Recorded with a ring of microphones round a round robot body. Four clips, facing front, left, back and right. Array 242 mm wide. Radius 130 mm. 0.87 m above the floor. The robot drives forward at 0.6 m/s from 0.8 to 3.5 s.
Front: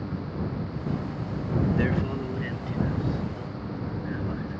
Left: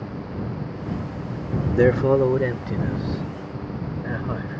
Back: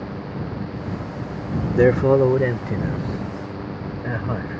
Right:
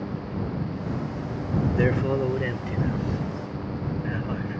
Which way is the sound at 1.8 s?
155° left.